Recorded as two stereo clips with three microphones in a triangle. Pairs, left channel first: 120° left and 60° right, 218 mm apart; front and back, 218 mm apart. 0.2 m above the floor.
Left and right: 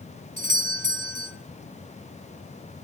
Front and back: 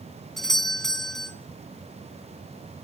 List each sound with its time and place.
0.4 s a doorbell: 90° right, 2 m